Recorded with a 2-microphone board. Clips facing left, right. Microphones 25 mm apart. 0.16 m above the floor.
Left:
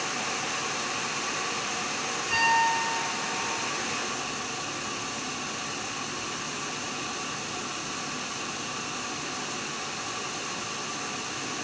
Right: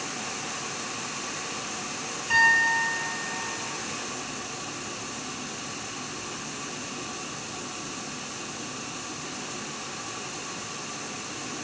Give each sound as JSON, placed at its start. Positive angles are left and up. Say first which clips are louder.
{"t": 2.3, "sound": "a piano", "louder": "right 3 dB", "side_deg": -55, "distance_m": 4.5}